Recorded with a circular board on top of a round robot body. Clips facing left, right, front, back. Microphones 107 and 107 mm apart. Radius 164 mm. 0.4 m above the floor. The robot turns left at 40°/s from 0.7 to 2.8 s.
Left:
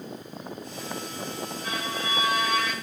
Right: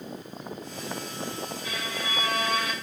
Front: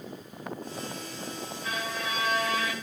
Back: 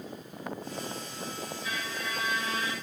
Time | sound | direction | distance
1.6 | a violin | 40° left | 5.5 m